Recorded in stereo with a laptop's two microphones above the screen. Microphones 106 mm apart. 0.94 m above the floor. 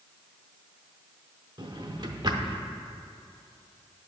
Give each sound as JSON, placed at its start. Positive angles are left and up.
{"t": 1.6, "sound": "a drawer", "side_deg": -40, "distance_m": 0.7}